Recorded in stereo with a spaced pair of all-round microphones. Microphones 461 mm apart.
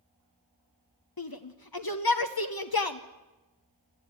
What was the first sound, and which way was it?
A shout, 50° left (ahead or behind).